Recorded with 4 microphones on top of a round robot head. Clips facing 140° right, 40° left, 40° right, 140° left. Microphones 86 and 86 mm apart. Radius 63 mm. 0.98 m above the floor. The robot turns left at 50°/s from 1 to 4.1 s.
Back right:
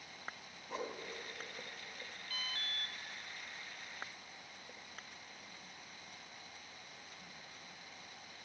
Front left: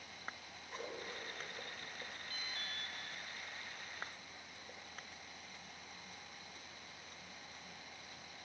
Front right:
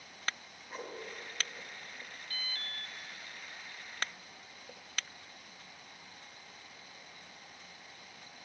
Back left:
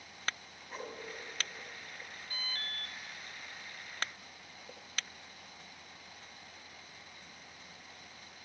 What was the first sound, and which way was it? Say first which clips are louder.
A whoosh: back right 4 dB, even; 135° right.